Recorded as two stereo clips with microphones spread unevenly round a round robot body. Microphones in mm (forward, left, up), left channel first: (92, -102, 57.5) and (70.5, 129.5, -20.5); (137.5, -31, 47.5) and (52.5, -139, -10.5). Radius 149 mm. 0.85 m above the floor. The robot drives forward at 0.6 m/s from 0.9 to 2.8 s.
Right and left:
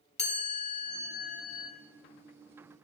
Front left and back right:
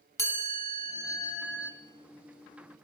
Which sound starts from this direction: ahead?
A chime, at 0.2 s.